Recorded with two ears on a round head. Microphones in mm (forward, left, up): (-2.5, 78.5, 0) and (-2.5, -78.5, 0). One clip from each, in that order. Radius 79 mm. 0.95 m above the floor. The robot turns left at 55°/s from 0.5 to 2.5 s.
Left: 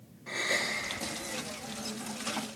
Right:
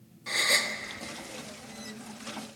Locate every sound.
0.3 s a gasp: 70° right (ahead or behind), 2.0 m; by 0.8 s 75° right (ahead or behind), 2.0 m